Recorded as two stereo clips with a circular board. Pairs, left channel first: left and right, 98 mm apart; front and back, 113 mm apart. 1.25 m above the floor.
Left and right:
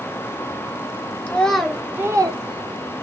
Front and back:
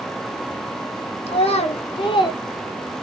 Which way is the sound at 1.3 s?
15° left.